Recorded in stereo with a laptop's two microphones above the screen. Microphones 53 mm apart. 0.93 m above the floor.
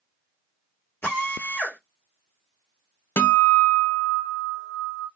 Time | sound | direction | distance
1.0 | a drill | 45° left (ahead or behind) | 1.3 m
3.2 | a guitar | 60° left (ahead or behind) | 0.6 m